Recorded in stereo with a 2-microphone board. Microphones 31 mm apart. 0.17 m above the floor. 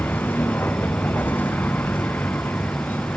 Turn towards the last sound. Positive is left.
turn(degrees=75)  # may be behind; listen again after turning